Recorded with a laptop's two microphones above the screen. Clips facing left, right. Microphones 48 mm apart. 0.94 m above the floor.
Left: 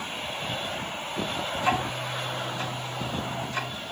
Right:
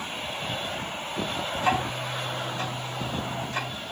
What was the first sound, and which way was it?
Ticking, 30° right (ahead or behind).